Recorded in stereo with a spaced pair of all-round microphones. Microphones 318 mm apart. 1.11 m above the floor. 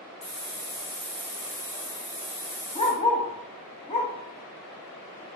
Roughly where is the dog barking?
Left.